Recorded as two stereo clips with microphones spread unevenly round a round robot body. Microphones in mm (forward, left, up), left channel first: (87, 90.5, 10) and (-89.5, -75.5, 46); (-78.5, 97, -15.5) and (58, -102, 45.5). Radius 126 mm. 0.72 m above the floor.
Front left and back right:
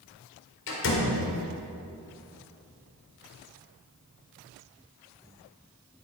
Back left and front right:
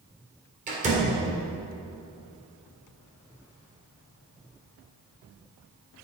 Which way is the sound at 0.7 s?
10° left.